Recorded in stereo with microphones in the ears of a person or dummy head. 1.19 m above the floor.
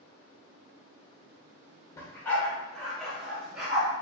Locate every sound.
2.0 s a dog barking: 15° left (ahead or behind), 1.4 m; by 3.9 s 10° right (ahead or behind), 2 m